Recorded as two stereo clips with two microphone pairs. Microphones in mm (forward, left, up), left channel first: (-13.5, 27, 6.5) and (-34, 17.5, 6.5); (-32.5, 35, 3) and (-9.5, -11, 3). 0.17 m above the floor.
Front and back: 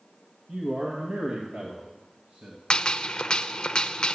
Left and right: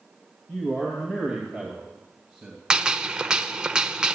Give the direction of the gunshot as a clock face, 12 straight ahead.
12 o'clock.